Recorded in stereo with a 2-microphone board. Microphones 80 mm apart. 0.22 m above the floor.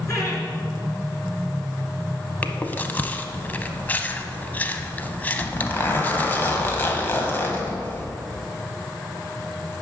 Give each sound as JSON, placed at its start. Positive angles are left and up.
{"t": 0.1, "sound": "laughter", "side_deg": 40, "distance_m": 2.5}
{"t": 2.4, "sound": "chewing", "side_deg": 20, "distance_m": 0.5}
{"t": 5.4, "sound": "a zipper", "side_deg": 25, "distance_m": 1.1}